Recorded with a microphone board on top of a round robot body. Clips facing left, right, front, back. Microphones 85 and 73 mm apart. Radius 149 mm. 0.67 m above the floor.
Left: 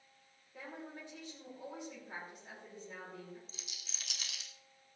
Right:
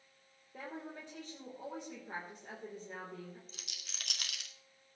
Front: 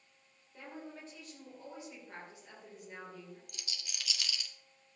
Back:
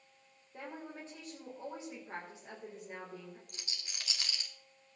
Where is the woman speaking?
120° right, 3.5 m.